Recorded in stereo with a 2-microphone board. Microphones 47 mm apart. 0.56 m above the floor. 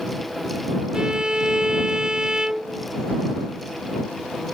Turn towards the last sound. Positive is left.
turn(degrees=-15)  # may be behind; listen again after turning